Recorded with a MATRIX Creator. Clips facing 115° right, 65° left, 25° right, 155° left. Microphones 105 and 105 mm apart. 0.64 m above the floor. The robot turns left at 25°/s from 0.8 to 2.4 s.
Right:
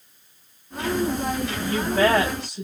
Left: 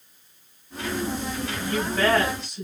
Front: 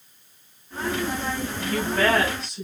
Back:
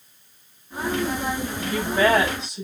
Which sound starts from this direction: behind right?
A woman speaking, at 1.6 s.